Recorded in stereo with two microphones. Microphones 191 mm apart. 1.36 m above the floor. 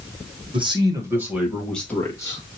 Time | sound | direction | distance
0.5 | a man speaking | 25° right (ahead or behind) | 1.3 m